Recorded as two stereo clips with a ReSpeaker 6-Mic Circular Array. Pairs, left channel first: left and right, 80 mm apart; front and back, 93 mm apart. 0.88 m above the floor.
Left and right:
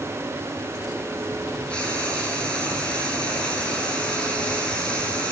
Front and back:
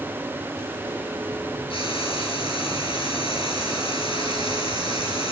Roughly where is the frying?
Ahead.